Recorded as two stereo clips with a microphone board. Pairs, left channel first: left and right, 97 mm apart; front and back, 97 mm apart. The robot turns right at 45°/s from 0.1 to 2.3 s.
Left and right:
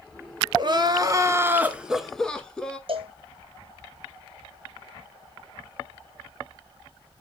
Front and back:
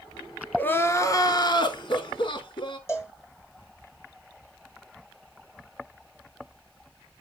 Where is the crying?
70° right, 0.8 m; by 2.8 s 10° left, 0.8 m.